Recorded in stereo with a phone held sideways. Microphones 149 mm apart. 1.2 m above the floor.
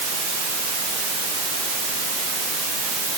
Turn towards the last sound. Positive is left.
No sound to turn to.